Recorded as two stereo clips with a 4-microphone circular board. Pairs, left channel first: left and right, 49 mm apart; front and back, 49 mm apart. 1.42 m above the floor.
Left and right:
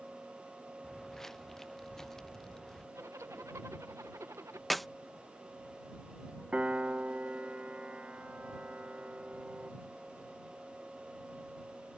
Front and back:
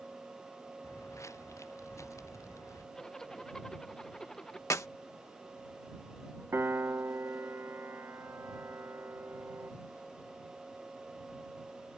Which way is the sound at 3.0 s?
75° right.